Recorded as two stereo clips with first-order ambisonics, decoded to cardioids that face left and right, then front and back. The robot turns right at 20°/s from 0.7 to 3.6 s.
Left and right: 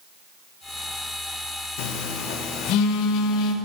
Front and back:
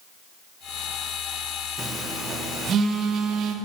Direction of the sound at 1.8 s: 100° left.